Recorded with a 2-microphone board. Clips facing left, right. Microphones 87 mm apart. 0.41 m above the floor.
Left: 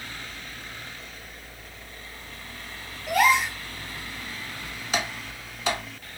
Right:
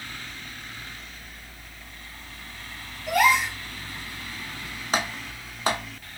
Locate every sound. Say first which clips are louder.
3.1 s a gasp: even; centre (ahead or behind), 2 m
4.9 s typing on a keyboard: right 2 dB; 40° right (ahead or behind), 0.8 m